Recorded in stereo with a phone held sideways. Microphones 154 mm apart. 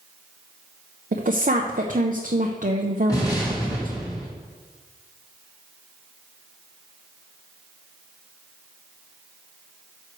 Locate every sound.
1.1 s a woman speaking: 60° right (ahead or behind), 0.7 m
3.1 s an explosion: 25° left (ahead or behind), 4 m